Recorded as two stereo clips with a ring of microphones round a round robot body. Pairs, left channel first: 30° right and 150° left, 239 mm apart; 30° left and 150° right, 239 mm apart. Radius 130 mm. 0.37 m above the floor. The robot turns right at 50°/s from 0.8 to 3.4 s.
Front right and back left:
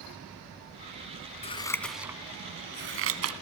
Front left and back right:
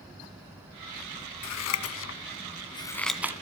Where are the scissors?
35° left, 2.0 m; by 3.3 s 130° left, 2.0 m.